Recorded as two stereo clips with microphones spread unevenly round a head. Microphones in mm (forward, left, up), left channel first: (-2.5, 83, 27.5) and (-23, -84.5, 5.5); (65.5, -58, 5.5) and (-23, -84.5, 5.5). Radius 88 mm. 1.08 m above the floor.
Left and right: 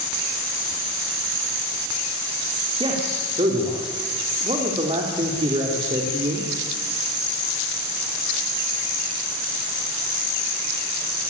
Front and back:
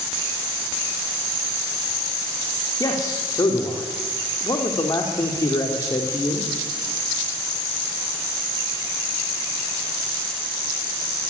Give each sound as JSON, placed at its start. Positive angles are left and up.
{"t": 2.8, "sound": "a man speaking", "azimuth_deg": -35, "distance_m": 3.0}